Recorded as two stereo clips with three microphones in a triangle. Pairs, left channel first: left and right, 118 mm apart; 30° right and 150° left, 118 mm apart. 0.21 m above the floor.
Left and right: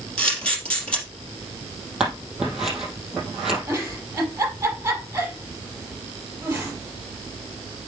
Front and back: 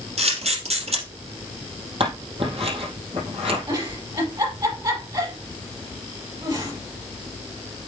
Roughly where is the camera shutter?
Behind.